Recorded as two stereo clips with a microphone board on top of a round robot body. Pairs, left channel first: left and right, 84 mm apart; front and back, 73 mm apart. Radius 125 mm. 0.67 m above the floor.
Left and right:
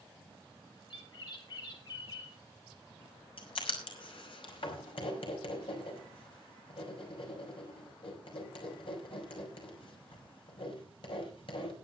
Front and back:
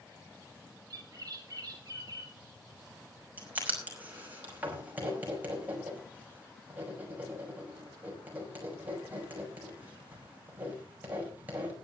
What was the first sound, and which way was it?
A bird, 130° left.